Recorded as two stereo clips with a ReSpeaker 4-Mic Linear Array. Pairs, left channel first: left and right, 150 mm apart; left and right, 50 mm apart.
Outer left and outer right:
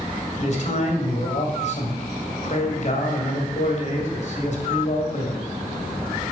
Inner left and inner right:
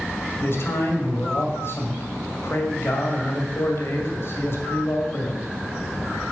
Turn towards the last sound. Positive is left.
turn(degrees=55)  # may be behind; listen again after turning